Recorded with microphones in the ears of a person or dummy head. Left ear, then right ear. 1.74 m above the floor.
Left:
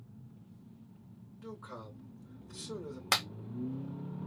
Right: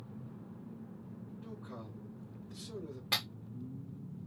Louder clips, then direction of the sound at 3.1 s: Left 3 dB; 45° left (ahead or behind).